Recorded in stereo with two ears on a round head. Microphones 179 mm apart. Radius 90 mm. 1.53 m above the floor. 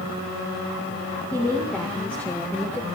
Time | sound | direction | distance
1.3 | a woman speaking | 5° left (ahead or behind) | 2.5 m